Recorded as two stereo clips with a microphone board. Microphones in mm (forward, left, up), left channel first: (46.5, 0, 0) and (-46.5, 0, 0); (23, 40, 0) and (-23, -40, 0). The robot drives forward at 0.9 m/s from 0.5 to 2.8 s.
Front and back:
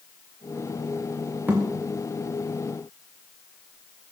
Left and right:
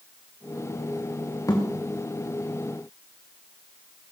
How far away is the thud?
About 3.5 m.